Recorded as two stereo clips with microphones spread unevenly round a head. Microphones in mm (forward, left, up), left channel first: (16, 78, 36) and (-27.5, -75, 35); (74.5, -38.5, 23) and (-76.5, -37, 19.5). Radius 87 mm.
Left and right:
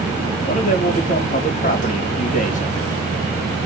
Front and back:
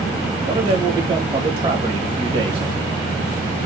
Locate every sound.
0.4 s a man speaking: 115° left, 1.5 m